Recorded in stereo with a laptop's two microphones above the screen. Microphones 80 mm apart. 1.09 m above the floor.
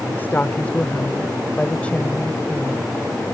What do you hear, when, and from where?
0.1 s a woman speaking: 25° left (ahead or behind); by 2.9 s 10° left (ahead or behind)